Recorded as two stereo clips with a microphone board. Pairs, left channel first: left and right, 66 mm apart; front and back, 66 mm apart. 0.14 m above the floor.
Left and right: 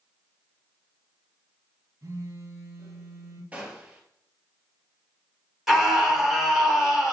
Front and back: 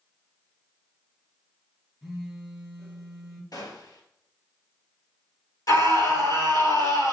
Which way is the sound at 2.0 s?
85° right.